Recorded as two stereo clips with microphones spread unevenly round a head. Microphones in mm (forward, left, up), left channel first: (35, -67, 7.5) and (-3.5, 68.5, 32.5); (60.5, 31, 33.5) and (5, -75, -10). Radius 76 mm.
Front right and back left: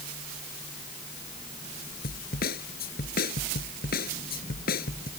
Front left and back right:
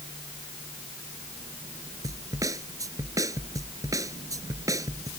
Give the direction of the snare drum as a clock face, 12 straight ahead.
2 o'clock.